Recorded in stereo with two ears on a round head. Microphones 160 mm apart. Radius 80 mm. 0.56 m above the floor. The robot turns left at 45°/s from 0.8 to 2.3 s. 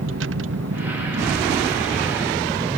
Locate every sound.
0.0 s a vehicle: 85° right; by 2.8 s 20° right (ahead or behind)